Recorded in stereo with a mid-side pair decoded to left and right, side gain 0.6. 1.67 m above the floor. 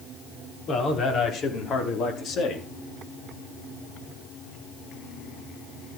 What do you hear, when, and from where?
0.7 s a man speaking: 50° left, 6 m